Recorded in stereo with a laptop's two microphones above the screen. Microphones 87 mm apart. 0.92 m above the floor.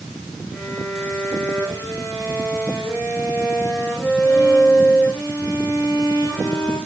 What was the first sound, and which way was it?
A violin, centre (ahead or behind).